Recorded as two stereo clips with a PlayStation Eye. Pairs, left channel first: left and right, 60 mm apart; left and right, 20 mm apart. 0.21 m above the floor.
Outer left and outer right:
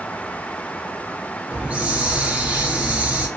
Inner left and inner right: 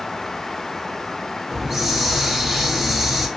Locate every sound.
1.5 s a hiss: 20° right (ahead or behind), 0.5 m